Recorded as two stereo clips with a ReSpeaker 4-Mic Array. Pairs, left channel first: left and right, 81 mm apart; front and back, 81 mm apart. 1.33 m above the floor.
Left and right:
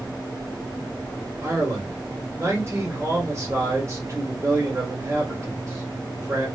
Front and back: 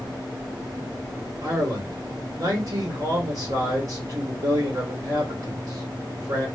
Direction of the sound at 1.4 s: 145° right.